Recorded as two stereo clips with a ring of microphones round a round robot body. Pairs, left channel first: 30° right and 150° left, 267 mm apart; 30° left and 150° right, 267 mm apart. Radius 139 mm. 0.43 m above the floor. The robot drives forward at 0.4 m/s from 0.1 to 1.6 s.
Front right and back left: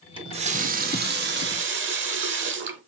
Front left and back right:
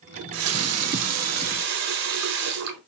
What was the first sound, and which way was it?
A running tap, 140° right.